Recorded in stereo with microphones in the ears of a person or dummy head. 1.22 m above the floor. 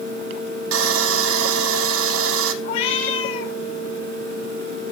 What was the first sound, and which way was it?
Sawing, 80° right.